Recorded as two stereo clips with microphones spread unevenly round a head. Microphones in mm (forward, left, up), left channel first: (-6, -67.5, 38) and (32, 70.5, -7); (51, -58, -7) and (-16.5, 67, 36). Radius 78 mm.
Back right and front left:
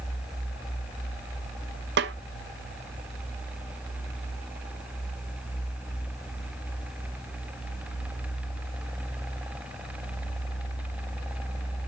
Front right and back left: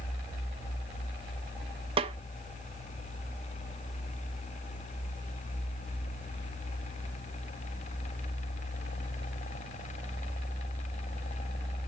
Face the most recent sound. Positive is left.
turn(degrees=70)